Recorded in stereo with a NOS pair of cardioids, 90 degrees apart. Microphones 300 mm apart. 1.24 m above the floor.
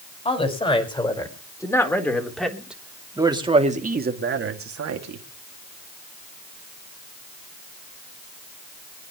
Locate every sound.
0.2 s a woman speaking: 20° left, 5.5 m; by 5.2 s 65° right, 2.5 m